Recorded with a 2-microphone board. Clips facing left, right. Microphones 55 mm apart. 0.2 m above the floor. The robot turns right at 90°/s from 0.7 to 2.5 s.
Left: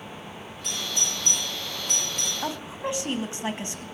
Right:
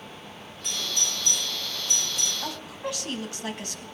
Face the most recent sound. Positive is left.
turn(degrees=20)  # may be behind; listen again after turning